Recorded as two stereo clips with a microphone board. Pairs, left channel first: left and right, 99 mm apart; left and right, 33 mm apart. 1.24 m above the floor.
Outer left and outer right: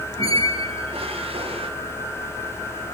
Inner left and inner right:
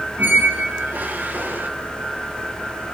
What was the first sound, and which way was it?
A squeak, 70° right (ahead or behind).